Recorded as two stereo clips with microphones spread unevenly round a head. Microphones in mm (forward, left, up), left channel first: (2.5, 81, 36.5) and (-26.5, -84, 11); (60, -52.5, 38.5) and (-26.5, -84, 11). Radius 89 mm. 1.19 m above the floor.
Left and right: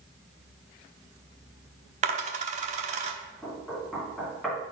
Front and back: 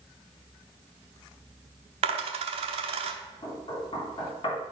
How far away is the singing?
No singing in this recording.